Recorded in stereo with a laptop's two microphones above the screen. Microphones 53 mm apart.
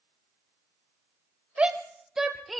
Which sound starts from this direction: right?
A shout, at 1.6 s.